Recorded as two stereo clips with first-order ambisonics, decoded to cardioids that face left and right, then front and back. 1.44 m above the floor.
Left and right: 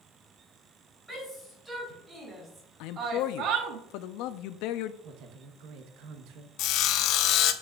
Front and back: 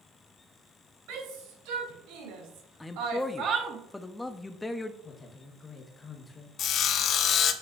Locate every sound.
1.1 s a shout: 175° right, 4 m; by 3.8 s 110° right, 1.1 m
2.8 s a man speaking: 80° left, 0.6 m
5.0 s a woman speaking: 75° right, 1.1 m
6.6 s sawing: 55° left, 0.6 m